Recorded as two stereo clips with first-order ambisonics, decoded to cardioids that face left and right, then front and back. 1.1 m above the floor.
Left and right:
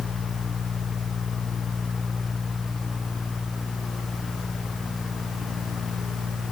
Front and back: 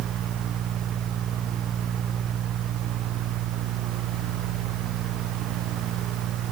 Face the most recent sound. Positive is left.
No sound to turn to.